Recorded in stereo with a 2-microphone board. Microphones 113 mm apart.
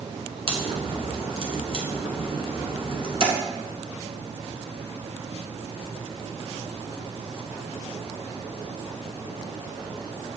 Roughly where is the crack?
Right.